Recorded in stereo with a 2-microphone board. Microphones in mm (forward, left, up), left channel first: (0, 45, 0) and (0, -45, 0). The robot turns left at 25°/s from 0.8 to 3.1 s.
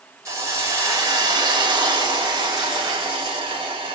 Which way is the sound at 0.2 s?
35° right.